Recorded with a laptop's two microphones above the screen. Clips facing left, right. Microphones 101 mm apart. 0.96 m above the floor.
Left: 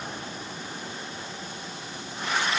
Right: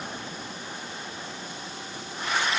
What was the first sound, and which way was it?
Only background noise.